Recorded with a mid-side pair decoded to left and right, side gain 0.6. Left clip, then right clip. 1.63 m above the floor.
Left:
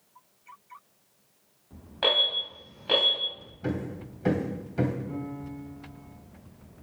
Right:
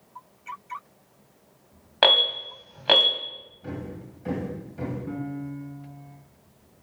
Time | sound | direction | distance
2.0 | an alarm | 60° right | 2.5 m
3.6 | hammering | 55° left | 1.9 m
5.1 | a piano | 55° right | 2 m